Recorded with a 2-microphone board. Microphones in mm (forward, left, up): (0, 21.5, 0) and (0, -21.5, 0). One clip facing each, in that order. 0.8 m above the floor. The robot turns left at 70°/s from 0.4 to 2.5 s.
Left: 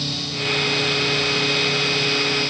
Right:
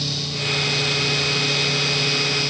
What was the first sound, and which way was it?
Only background noise.